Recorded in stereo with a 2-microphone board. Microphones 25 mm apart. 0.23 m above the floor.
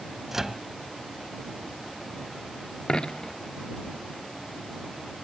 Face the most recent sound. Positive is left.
turn(degrees=35)  # may be behind; listen again after turning